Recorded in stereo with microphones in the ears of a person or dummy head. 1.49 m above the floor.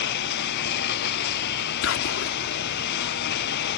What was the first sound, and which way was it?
A lawn mower, 65° left (ahead or behind).